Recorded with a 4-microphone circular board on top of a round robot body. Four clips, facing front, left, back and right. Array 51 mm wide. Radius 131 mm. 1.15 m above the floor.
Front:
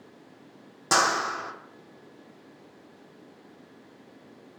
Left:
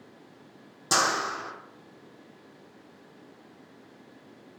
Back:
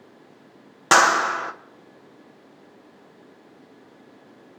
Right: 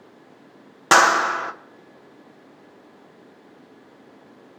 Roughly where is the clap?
Behind right.